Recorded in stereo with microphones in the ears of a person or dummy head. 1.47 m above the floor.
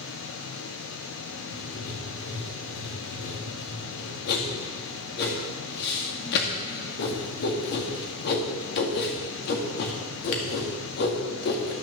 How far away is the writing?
About 1.8 m.